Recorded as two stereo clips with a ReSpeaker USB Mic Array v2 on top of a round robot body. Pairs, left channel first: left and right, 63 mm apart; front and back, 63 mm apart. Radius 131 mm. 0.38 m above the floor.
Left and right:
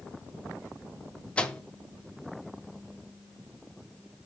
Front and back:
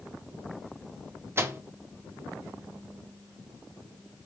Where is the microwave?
155° left, 1.1 m.